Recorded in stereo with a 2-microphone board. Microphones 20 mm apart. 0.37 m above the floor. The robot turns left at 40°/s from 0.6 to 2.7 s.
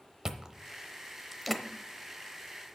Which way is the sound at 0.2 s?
35° right (ahead or behind).